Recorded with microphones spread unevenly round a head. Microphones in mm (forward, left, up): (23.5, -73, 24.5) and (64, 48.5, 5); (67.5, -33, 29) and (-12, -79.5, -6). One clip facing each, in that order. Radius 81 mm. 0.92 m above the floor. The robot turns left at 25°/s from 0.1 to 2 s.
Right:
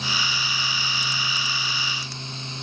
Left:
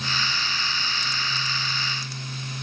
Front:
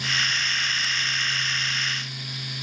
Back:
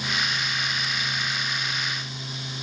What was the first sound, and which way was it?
Only background noise.